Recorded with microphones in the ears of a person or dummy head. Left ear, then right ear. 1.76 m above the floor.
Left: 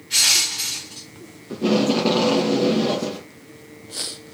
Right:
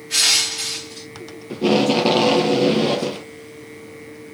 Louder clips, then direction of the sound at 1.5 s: Right 3 dB; 20° right (ahead or behind).